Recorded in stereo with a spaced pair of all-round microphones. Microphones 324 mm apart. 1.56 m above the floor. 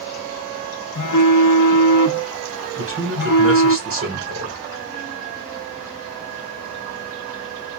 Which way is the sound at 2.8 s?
40° right (ahead or behind).